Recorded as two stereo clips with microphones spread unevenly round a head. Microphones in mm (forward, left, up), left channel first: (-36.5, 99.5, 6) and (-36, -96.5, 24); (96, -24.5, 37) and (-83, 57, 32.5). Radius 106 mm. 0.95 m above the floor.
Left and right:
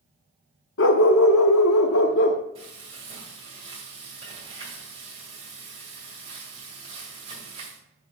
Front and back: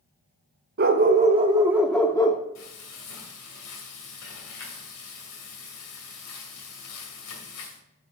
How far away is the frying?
About 2.5 m.